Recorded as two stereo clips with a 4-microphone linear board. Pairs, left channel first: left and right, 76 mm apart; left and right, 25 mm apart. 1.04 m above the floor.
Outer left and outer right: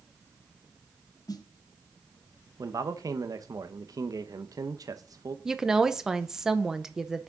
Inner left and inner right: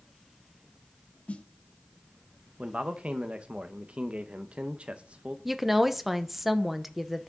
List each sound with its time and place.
1.3 s a snare drum: 55° left (ahead or behind), 0.9 m
2.6 s a man speaking: 50° right (ahead or behind), 0.8 m
5.5 s a woman speaking: 5° right (ahead or behind), 0.8 m